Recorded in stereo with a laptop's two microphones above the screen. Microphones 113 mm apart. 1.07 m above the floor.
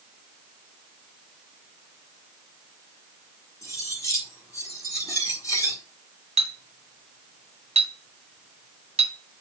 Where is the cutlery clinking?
30° left (ahead or behind), 2 m.